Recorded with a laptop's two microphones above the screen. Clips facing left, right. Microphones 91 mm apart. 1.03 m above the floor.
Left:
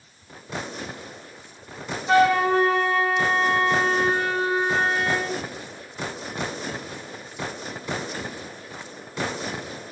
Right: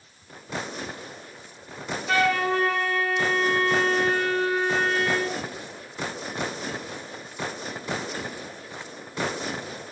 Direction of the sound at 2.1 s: 20° left (ahead or behind).